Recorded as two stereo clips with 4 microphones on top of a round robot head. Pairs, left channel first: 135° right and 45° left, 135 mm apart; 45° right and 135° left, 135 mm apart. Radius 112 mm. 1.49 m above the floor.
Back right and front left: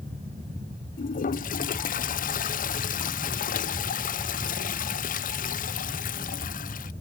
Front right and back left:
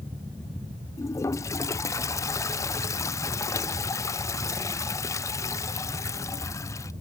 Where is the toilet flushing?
115° right.